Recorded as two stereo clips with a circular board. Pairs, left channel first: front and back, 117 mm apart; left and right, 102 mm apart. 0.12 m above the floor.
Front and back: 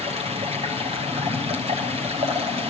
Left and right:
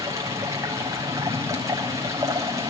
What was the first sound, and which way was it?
Running water, 150° right.